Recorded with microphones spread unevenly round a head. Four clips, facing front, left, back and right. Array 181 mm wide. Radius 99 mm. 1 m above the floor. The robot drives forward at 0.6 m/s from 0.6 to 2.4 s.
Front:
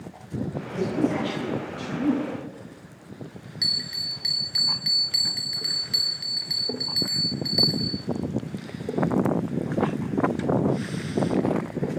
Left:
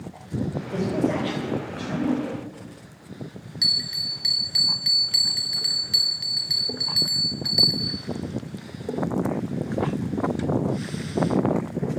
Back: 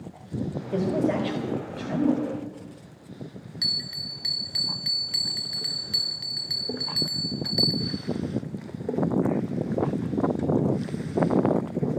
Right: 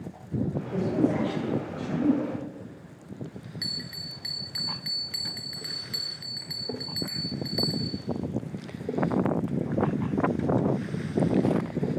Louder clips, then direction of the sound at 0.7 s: Left 1 dB, back 1 dB; 170° left.